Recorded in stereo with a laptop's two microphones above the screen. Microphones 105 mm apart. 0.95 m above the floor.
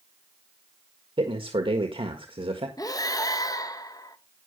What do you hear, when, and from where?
1.2 s a man speaking: 60° right (ahead or behind), 1.5 m
2.8 s breathing: 35° left (ahead or behind), 1.0 m